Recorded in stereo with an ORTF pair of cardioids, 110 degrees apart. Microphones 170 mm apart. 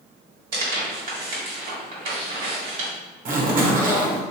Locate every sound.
0.5 s tearing paper: 65° right, 1.6 m
3.2 s a zipper: 60° right, 0.9 m